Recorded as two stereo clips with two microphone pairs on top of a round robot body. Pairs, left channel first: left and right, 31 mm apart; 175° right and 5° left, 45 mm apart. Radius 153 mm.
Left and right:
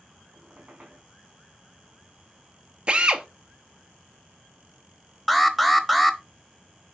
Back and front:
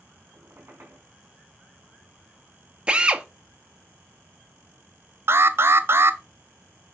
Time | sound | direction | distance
0.3 | a squeak | 35° right | 4.5 m
2.9 | a drill | 45° right | 1.2 m
5.3 | an alarm | straight ahead | 1.1 m